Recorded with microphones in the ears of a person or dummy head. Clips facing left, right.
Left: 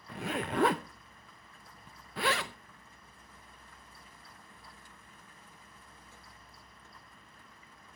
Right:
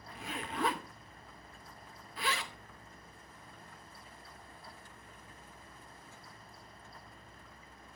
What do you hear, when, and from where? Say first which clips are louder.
0.1 s a zipper: left 8 dB; 45° left (ahead or behind), 0.5 m